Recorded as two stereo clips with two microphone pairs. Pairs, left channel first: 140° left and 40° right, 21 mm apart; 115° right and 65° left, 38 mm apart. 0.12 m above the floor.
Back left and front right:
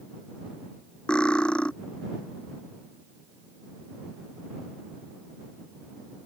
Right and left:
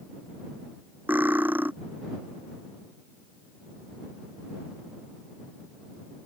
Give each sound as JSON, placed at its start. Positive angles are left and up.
{"t": 1.1, "sound": "cutlery clinking", "azimuth_deg": 105}